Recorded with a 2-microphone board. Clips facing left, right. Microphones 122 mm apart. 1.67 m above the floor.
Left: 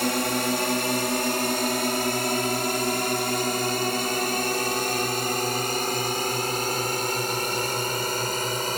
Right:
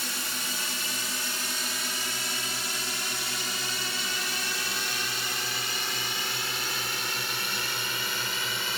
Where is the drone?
60° left (ahead or behind); by 8.8 s 40° left (ahead or behind).